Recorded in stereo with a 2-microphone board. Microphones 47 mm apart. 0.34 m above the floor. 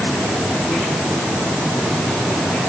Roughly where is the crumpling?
No crumpling in this recording.